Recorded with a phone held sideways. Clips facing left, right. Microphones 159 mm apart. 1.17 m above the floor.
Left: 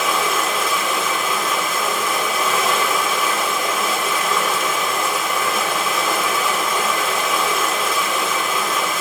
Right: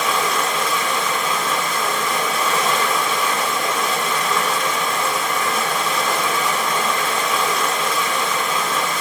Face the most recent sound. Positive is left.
turn(degrees=0)  # may be behind; listen again after turning